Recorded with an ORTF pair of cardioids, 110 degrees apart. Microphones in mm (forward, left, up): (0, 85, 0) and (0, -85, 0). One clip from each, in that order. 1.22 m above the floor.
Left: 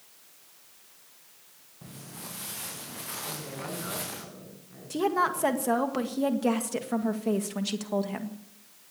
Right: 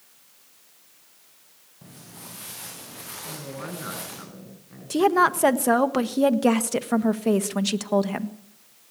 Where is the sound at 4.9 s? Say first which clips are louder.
Right 7 dB; 40° right, 1.6 m.